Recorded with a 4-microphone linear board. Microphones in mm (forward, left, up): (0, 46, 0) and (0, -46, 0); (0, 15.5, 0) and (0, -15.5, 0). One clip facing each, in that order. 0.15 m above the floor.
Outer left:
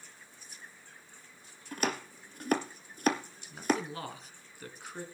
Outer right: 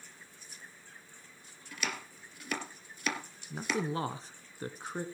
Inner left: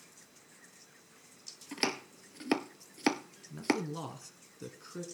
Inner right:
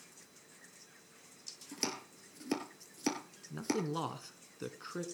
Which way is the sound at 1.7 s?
45° left (ahead or behind).